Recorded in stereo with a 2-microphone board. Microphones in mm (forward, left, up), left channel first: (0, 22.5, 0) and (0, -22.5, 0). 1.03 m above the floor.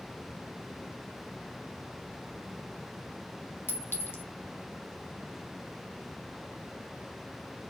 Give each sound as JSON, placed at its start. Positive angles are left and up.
{"t": 3.7, "sound": "a clink", "side_deg": 50, "distance_m": 1.6}